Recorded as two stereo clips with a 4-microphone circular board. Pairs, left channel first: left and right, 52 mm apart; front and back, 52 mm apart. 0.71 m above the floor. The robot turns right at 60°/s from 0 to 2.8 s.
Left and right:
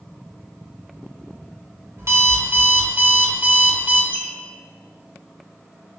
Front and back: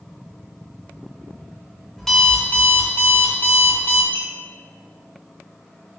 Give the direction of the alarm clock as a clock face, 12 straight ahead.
3 o'clock.